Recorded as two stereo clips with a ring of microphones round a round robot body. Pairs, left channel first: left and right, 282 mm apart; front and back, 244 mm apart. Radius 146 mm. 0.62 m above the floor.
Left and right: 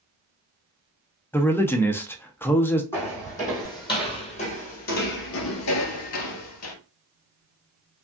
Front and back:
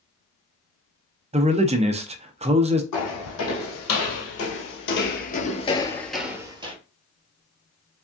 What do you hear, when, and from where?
1.3 s a man speaking: 165° left, 0.6 m
2.9 s footsteps: 10° left, 2 m; by 6.8 s 115° left, 1.1 m